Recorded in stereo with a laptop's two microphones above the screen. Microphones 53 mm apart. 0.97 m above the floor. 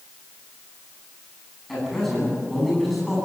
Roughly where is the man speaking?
Centre.